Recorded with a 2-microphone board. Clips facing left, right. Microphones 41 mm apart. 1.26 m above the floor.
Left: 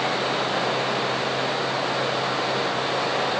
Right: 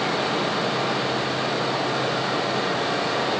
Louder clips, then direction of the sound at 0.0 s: Even; 35° left (ahead or behind).